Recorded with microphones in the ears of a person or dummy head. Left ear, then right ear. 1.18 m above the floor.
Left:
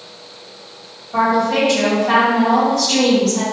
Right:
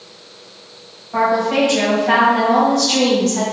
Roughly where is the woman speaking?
Right.